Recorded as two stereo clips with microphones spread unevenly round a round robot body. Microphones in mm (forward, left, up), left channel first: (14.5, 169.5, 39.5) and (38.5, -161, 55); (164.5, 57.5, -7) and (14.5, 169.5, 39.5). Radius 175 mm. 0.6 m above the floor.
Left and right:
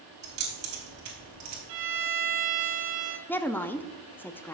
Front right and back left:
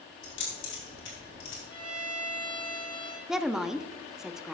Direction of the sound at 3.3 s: 25° left.